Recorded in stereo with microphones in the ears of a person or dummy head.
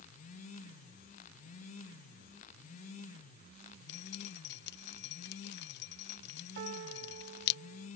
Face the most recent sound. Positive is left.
turn(degrees=-55)  # may be behind; listen again after turning